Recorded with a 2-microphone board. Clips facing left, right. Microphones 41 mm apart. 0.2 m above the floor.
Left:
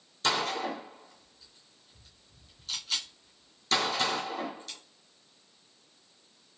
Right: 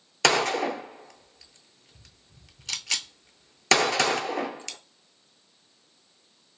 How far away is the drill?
I don't hear a drill.